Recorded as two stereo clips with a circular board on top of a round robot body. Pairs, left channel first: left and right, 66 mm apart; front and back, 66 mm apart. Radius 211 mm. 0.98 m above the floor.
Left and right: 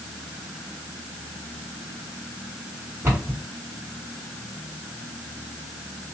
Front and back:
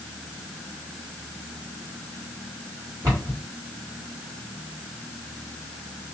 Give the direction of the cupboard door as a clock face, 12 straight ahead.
5 o'clock.